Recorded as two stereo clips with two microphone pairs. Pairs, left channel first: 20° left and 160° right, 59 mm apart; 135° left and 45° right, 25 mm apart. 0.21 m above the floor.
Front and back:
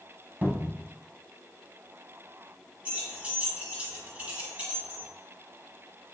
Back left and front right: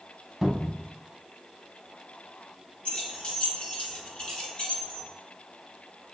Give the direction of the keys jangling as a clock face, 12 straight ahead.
7 o'clock.